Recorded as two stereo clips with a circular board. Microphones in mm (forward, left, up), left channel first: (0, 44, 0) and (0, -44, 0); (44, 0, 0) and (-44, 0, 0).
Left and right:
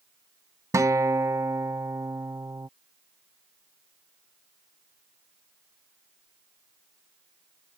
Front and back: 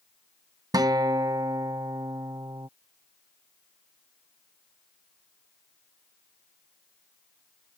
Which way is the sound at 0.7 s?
140° right.